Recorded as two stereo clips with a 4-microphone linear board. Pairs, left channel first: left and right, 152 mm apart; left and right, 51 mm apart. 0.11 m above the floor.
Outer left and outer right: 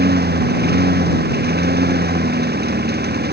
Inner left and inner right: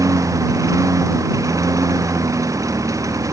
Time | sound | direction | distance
0.0 | a lawn mower | 85° right | ?